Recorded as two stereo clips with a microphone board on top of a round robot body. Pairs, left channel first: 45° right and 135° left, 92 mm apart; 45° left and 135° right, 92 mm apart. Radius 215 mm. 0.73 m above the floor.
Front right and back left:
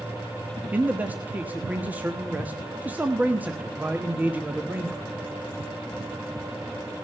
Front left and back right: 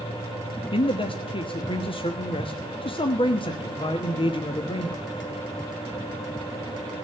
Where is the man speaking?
65° left, 1.5 m.